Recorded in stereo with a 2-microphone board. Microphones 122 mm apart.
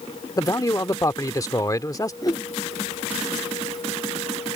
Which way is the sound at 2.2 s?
30° left (ahead or behind).